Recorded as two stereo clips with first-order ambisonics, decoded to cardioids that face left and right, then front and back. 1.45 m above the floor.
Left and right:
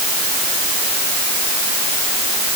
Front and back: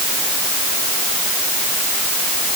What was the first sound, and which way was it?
Only background noise.